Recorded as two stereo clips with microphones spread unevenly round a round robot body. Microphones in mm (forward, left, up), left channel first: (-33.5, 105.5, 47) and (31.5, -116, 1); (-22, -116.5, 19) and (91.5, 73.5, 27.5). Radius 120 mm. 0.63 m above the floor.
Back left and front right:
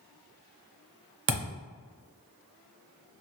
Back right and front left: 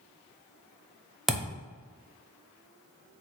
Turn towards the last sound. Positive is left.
turn(degrees=-30)